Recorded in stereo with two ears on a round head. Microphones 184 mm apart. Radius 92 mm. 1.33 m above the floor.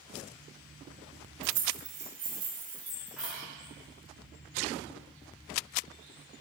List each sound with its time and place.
1.4 s keys jangling: 70° right (ahead or behind), 0.9 m; by 3.4 s centre (ahead or behind), 2.5 m